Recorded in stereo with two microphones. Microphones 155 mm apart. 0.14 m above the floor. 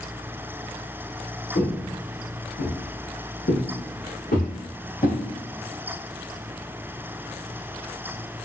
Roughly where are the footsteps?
Left.